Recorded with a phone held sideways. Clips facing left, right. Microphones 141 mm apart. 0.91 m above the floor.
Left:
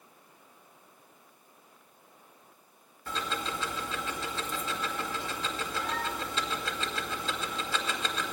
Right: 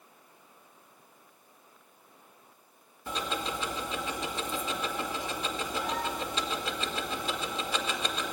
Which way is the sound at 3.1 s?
15° right (ahead or behind).